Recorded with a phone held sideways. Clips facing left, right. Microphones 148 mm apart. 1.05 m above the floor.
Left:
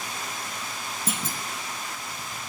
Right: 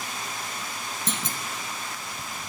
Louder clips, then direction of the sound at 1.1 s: Left 1 dB; 10° left (ahead or behind).